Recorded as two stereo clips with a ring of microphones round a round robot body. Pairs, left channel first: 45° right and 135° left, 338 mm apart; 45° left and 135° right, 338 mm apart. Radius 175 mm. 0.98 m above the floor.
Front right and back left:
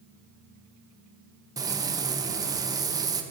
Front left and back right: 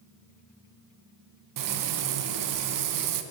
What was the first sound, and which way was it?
Frying, 145° right.